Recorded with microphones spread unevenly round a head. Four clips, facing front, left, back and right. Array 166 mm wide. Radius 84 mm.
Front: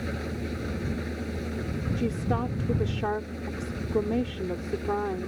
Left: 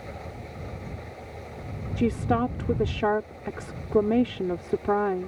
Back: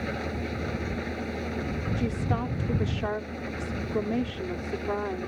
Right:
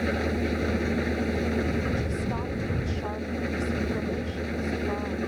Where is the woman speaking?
85° left.